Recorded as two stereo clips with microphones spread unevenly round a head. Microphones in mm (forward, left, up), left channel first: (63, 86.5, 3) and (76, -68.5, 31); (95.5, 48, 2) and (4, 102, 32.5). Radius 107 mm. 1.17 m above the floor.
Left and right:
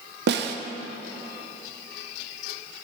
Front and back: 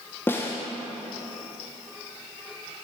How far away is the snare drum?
About 0.7 m.